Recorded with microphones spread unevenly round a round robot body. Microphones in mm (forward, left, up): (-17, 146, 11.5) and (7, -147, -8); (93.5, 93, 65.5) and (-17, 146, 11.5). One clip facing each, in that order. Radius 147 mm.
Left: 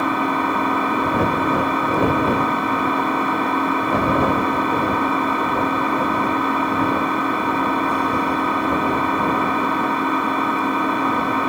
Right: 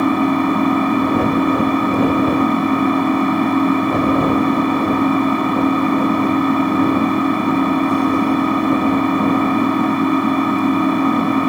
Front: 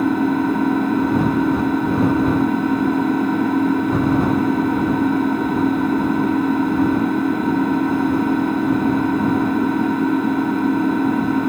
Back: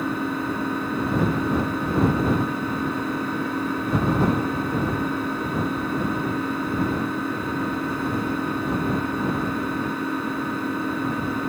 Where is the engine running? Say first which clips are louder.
Right 7 dB, front 9 dB; 75° right.